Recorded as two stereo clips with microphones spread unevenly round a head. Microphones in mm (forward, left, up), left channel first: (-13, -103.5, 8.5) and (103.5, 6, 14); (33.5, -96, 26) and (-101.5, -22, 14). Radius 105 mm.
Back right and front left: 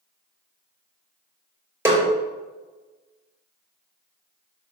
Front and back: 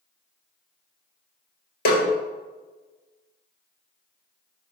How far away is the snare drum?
About 2.5 m.